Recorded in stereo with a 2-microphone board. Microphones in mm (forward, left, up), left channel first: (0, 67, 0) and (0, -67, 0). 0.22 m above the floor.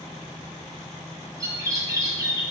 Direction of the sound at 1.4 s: 30° right (ahead or behind).